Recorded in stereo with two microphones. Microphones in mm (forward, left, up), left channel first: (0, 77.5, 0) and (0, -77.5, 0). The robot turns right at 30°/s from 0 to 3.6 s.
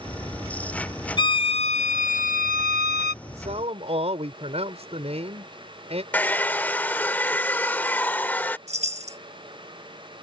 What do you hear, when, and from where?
1.2 s a violin: 30° left; by 3.1 s 90° left
3.2 s a man speaking: 50° right (ahead or behind); by 6.0 s 40° right (ahead or behind)
6.1 s a hair dryer: 10° left (ahead or behind)
8.7 s a chime: 45° right (ahead or behind)